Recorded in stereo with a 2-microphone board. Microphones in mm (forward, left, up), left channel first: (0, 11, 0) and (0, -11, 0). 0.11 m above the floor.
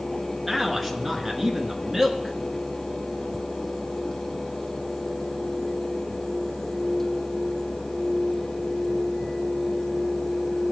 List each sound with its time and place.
0.5 s a man speaking: 5° right (ahead or behind), 1.1 m